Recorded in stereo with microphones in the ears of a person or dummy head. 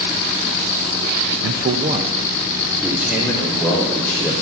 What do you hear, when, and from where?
1.4 s a man speaking: 65° right (ahead or behind), 0.7 m; by 4.3 s 5° left (ahead or behind), 3 m